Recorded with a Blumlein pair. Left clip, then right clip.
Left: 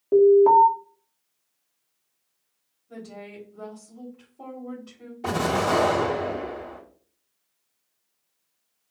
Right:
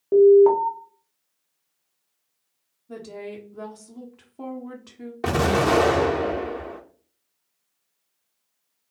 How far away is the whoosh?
No whoosh in this recording.